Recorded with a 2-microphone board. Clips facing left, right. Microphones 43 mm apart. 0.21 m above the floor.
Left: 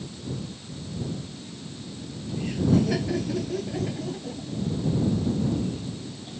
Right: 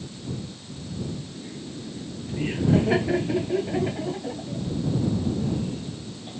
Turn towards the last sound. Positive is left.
turn(degrees=-20)  # may be behind; listen again after turning